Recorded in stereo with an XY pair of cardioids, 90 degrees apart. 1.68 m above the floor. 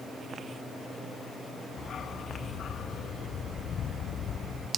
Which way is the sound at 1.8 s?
60° left.